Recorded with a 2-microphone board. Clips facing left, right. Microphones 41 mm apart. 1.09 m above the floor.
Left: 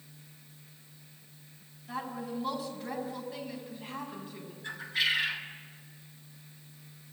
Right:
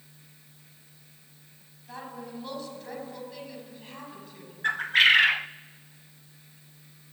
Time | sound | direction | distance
1.9 | a woman speaking | 5° left (ahead or behind) | 8.5 m
4.6 | a bird | 55° right (ahead or behind) | 0.6 m